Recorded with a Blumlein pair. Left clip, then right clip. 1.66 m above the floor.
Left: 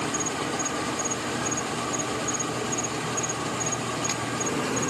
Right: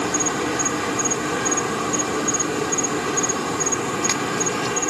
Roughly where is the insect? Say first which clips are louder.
Right 6 dB; ahead right.